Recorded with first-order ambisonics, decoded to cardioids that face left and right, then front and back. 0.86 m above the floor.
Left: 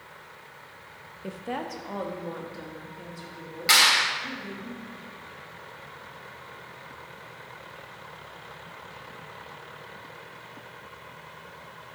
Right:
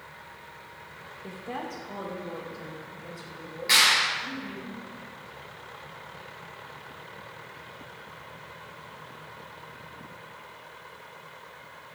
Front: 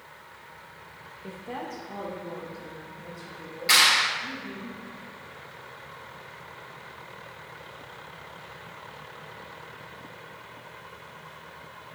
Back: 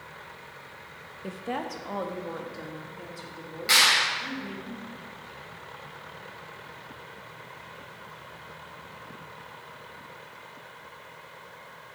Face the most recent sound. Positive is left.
turn(degrees=90)